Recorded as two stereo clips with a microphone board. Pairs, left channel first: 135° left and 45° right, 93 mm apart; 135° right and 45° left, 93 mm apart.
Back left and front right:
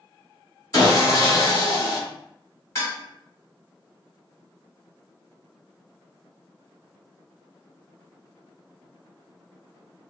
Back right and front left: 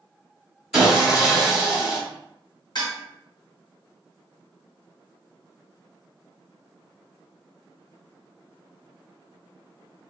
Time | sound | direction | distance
0.7 | sawing | 130° left | 1.5 m
2.8 | dishes clattering | 165° right | 1.9 m